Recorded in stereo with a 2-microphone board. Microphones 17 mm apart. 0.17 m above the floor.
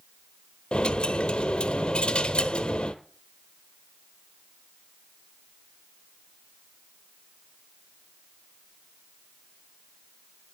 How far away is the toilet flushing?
I don't hear a toilet flushing.